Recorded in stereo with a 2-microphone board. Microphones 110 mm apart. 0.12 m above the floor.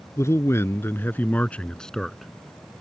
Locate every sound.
0.2 s a man speaking: 25° left (ahead or behind); by 2.3 s centre (ahead or behind)